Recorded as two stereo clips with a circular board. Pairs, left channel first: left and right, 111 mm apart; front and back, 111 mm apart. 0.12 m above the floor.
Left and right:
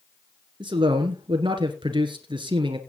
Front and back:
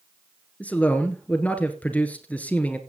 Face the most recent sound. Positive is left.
turn(degrees=-75)